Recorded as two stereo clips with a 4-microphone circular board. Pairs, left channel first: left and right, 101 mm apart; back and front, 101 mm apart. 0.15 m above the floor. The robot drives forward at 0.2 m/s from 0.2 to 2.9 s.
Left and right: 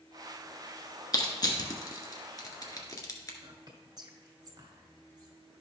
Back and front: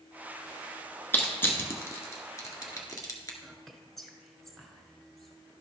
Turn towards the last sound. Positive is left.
turn(degrees=-95)